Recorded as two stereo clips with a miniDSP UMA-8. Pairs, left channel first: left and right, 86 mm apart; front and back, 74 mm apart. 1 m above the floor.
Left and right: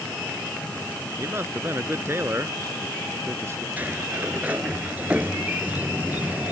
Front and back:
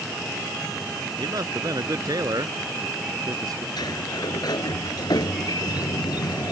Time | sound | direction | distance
1.2 | a man speaking | 150° right | ?
3.8 | a sliding door | 20° right | ?